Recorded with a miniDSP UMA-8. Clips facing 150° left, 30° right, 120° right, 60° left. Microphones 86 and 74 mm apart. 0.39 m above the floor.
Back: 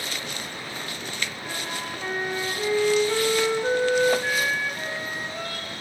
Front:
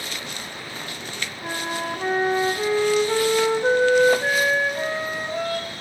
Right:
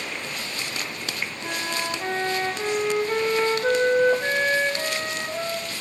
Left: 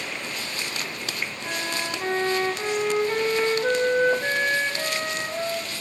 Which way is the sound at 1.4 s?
30° right.